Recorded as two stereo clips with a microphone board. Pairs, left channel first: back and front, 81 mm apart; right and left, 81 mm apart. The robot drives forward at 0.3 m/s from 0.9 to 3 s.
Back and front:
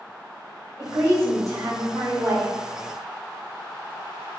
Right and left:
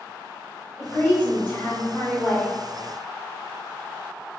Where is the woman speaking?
25° right, 1.5 m; by 2.5 s 45° right, 1.2 m.